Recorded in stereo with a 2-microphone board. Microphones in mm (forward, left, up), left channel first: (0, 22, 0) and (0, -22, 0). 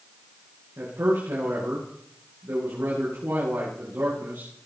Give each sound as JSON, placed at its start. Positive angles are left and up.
{"t": 0.8, "sound": "a man speaking", "side_deg": -70, "distance_m": 9.0}